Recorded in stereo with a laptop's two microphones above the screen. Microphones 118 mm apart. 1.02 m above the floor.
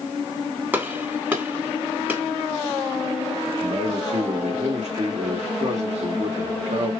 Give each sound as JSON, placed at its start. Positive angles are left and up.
{"t": 0.7, "sound": "a gunshot", "side_deg": -15, "distance_m": 3.5}
{"t": 3.6, "sound": "a man speaking", "side_deg": -70, "distance_m": 2.5}